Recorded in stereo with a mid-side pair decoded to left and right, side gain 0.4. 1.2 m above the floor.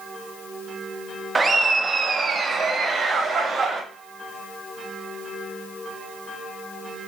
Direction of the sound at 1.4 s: 30° right.